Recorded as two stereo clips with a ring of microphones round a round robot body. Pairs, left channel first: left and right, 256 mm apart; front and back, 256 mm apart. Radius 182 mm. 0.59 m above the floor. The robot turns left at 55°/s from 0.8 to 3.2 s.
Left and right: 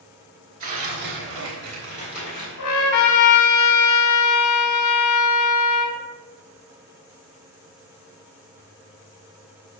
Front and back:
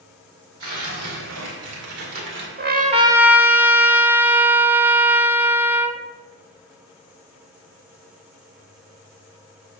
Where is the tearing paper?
135° right, 2 m; by 2.5 s 135° left, 2 m.